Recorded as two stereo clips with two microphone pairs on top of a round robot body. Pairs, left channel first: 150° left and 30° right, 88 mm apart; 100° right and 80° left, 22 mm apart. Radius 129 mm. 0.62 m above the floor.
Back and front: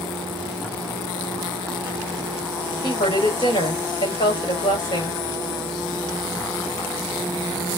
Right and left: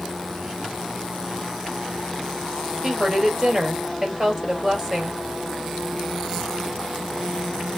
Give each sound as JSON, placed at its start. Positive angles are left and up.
{"t": 2.8, "sound": "a woman speaking", "azimuth_deg": 140, "distance_m": 3.5}